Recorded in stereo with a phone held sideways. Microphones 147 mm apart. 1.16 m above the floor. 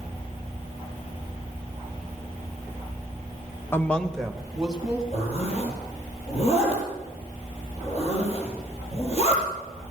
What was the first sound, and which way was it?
A woman speaking, 15° left (ahead or behind).